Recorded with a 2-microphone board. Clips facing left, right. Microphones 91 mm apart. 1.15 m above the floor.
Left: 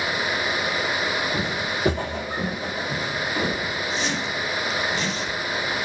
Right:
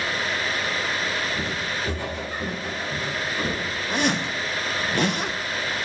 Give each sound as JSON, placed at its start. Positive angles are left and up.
{"t": 1.3, "sound": "footsteps", "side_deg": 70, "distance_m": 3.5}
{"t": 3.9, "sound": "a zipper", "side_deg": -55, "distance_m": 0.5}